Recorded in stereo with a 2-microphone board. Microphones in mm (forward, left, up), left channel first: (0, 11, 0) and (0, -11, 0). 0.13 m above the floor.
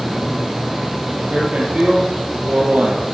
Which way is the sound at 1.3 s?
65° right (ahead or behind).